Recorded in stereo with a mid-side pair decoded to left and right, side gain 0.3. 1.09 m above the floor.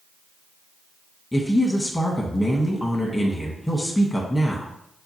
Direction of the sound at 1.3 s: 20° left.